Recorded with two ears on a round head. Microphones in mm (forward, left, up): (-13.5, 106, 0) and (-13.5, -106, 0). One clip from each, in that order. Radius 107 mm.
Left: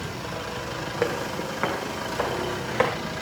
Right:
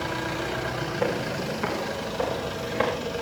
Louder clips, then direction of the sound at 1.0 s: Left 1 dB; 60° left (ahead or behind).